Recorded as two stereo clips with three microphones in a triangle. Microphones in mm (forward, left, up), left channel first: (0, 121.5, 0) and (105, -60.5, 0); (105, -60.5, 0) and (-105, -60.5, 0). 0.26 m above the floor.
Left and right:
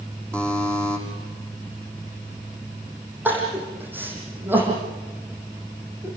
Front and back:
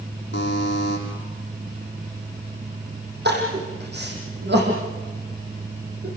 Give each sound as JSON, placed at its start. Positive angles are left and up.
{"t": 0.3, "sound": "a buzzer", "azimuth_deg": 35, "distance_m": 7.0}
{"t": 3.2, "sound": "crying", "azimuth_deg": -140, "distance_m": 7.0}